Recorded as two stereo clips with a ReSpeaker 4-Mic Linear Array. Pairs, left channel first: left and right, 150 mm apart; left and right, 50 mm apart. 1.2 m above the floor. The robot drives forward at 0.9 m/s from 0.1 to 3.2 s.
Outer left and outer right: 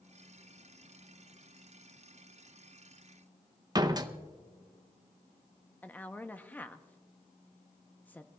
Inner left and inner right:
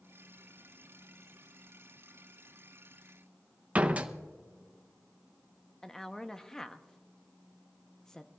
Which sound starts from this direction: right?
A door slam, at 3.8 s.